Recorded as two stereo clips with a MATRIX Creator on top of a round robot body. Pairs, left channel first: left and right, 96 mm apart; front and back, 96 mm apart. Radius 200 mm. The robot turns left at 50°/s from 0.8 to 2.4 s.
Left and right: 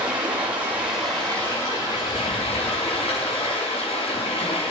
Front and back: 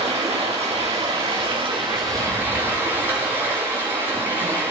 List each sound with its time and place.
0.0 s running water: 170° right, 6.5 m; by 4.7 s 110° left, 6.5 m